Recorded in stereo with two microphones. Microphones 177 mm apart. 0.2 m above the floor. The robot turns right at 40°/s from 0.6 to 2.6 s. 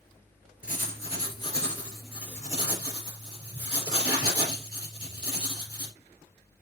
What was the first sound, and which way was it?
Writing, 125° left.